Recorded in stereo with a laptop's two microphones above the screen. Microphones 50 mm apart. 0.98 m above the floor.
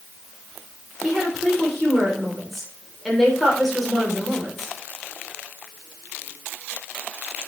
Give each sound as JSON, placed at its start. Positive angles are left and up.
{"t": 1.0, "sound": "a woman speaking", "side_deg": 0, "distance_m": 3.0}